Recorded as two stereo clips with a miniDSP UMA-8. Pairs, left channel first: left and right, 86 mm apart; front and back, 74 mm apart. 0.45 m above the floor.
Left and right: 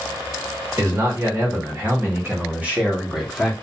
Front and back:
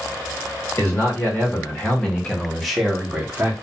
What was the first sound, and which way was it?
A man speaking, 50° right.